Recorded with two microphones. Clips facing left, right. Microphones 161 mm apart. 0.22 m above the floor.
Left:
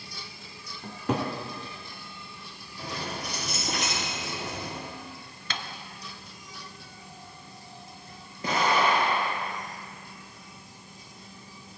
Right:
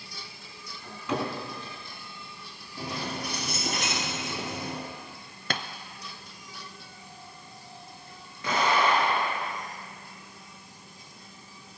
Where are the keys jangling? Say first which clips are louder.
Right 2 dB; 55° right (ahead or behind), 4 m.